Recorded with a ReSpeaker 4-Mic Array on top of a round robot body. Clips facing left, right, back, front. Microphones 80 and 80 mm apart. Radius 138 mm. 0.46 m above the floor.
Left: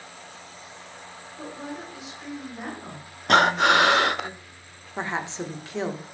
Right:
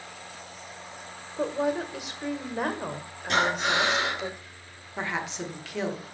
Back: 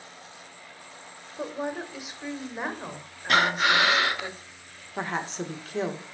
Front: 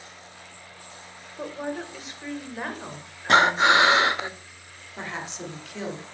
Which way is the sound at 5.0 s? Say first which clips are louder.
Left 2 dB, back 4 dB; 145° left.